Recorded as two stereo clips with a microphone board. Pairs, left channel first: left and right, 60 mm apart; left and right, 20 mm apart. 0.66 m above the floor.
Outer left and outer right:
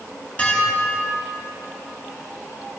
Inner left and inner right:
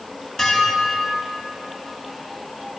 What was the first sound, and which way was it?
Dishes clattering, 20° left (ahead or behind).